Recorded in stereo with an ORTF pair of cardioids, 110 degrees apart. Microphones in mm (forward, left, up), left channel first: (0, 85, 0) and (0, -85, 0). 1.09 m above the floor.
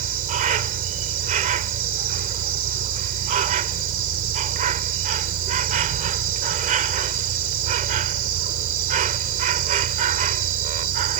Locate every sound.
0.0 s an insect: 55° right